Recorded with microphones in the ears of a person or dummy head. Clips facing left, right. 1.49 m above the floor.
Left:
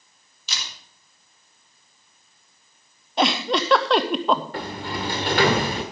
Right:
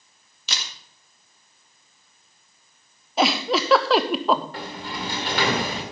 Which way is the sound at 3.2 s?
Centre (ahead or behind).